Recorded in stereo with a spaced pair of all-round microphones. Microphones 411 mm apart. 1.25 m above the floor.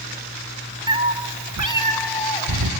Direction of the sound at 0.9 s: 10° right (ahead or behind).